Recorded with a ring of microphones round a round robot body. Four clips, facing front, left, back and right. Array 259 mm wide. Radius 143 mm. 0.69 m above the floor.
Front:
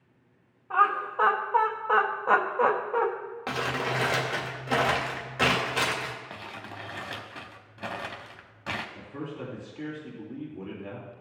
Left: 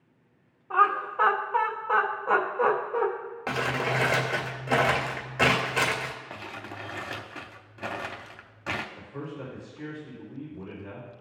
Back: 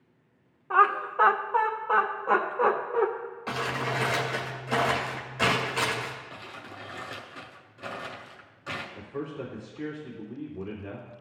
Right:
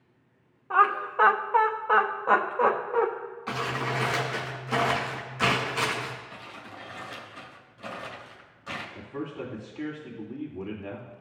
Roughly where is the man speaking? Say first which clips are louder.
Right 3 dB, back 2 dB; right.